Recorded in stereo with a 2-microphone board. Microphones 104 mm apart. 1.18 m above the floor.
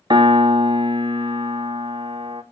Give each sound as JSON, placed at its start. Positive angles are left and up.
{"t": 0.1, "sound": "a piano", "side_deg": -50, "distance_m": 0.5}